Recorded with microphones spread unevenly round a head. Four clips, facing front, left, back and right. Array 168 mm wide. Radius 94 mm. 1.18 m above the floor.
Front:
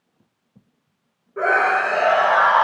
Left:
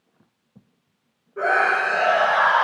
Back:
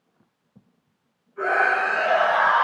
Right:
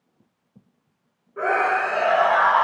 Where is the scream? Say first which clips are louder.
Left 1 dB, front 3 dB; 10° left, 6.5 m; by 2.6 s 5° left, 7.5 m.